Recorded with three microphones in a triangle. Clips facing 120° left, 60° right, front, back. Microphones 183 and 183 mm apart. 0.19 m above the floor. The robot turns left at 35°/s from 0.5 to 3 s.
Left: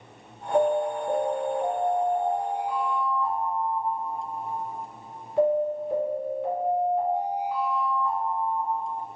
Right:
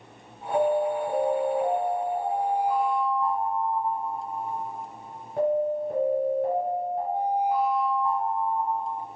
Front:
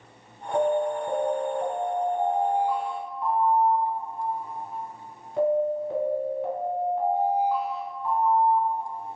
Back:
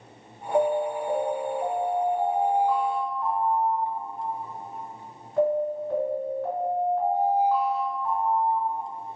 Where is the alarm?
20° left, 1.2 m; by 8.9 s 65° right, 1.2 m.